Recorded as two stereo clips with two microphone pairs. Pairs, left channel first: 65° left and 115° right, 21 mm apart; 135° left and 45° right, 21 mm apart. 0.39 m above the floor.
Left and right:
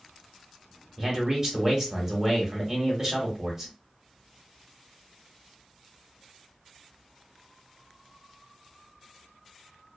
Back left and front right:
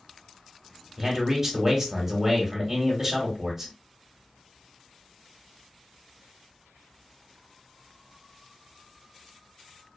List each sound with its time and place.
1.0 s a man speaking: 90° right, 1.0 m